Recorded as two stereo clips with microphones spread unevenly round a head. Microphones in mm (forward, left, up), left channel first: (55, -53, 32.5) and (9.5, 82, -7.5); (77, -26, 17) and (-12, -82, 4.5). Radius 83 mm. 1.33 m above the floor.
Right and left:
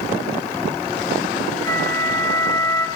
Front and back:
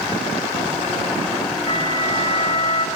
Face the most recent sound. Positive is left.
turn(degrees=-10)